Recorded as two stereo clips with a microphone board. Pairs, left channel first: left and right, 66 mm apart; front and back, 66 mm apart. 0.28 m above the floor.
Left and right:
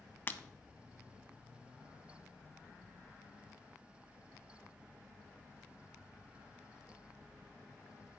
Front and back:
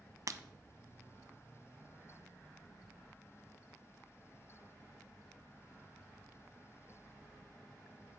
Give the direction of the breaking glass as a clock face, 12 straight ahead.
7 o'clock.